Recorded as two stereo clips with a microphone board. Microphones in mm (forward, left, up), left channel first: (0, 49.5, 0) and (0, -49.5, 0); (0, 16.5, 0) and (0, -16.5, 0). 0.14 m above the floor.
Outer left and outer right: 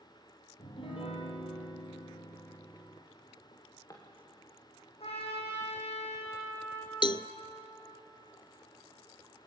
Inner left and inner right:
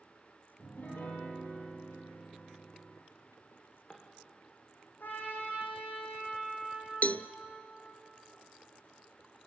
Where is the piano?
60° left (ahead or behind), 4 m.